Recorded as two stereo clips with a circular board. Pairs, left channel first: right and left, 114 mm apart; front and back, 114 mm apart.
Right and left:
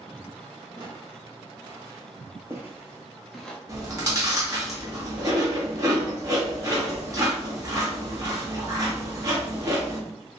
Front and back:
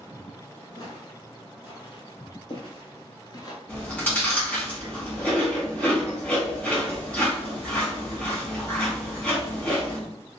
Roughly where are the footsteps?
Ahead left.